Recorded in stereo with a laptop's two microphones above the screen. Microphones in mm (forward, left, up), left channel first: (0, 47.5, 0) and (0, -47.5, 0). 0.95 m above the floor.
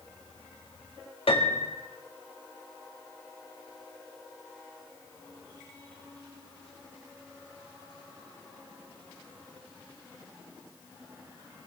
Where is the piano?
75° left (ahead or behind), 1.6 m.